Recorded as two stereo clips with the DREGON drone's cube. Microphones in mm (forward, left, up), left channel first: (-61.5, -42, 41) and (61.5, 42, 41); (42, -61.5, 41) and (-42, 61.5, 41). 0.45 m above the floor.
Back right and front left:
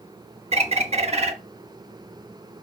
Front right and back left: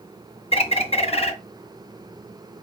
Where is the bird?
10° right, 0.5 m.